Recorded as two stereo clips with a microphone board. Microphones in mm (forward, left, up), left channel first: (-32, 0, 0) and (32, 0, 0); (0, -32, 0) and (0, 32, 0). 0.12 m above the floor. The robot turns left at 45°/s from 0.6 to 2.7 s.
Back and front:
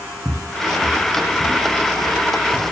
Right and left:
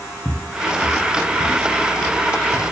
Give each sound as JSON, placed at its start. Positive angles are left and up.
{"t": 0.2, "sound": "footsteps", "azimuth_deg": -35, "distance_m": 0.7}